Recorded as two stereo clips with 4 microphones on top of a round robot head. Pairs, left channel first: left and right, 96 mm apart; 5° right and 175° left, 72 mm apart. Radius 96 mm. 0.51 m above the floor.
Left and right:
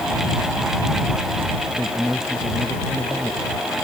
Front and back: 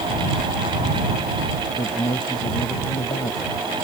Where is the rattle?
No rattle in this recording.